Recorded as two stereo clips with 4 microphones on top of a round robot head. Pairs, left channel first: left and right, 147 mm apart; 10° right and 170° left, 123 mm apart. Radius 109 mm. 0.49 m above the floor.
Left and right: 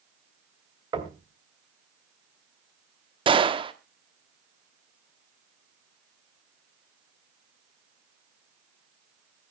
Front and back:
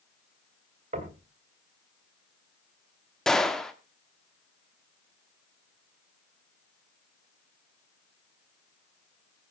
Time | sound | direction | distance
0.9 | knocking | 155° right | 2.5 m
3.3 | a gunshot | 95° right | 1.5 m